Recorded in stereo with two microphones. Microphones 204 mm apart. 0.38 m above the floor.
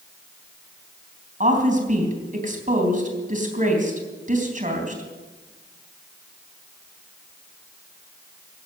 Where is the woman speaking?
40° right (ahead or behind), 3.5 m.